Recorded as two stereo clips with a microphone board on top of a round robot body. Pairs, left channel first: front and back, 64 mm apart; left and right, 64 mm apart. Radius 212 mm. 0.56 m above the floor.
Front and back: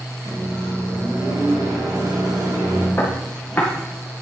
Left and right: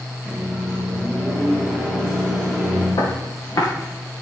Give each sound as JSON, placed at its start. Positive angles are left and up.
{"t": 0.2, "sound": "a microwave", "azimuth_deg": 170, "distance_m": 4.5}
{"t": 3.0, "sound": "footsteps", "azimuth_deg": 65, "distance_m": 2.0}